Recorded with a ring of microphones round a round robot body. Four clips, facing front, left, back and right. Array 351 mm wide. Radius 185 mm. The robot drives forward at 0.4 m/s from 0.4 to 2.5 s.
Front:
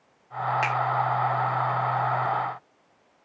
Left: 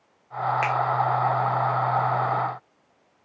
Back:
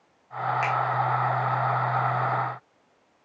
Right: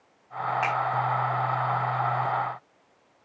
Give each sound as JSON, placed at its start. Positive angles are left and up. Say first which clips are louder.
{"t": 0.6, "sound": "a finger snap", "louder": "even, back 2 dB", "azimuth_deg": 80, "distance_m": 2.0}